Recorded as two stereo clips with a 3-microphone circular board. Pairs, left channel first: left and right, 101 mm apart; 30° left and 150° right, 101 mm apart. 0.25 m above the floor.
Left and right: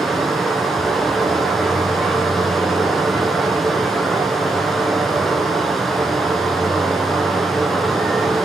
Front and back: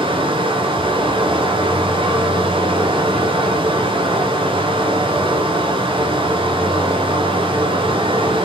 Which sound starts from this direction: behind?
Running water, at 0.0 s.